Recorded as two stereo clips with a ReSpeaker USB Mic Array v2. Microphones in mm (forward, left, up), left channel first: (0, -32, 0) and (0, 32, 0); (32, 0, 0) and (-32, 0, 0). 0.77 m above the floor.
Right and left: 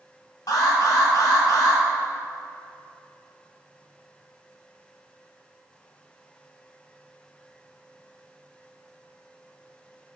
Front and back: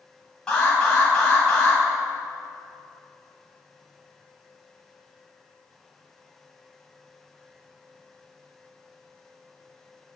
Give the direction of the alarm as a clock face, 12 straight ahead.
3 o'clock.